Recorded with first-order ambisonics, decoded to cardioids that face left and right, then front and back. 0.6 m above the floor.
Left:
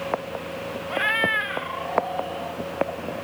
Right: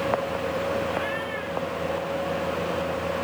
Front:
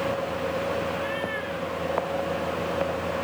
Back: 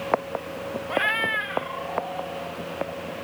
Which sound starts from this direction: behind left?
A cat meowing, at 0.9 s.